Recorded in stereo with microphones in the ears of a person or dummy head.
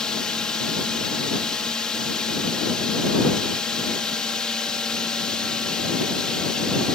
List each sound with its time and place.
0.0 s a drone: 5° left (ahead or behind)